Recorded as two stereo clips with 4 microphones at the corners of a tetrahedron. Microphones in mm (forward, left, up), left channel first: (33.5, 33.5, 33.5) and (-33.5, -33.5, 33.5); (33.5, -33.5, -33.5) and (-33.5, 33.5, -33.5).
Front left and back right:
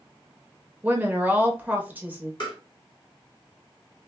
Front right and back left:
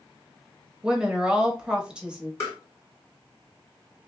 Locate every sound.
0.8 s a woman speaking: 165° right, 0.9 m
2.4 s tapping: 15° left, 2.5 m